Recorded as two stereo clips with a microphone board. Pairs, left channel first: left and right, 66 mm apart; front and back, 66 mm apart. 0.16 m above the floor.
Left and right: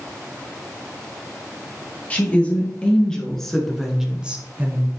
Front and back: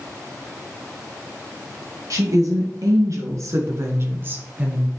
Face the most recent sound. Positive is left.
turn(degrees=-110)